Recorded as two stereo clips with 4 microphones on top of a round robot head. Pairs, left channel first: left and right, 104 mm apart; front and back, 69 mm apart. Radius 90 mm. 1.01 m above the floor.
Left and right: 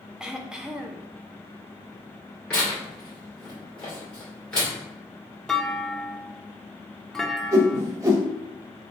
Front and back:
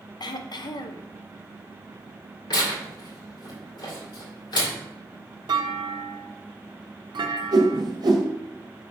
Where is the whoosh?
150° right, 1.1 m.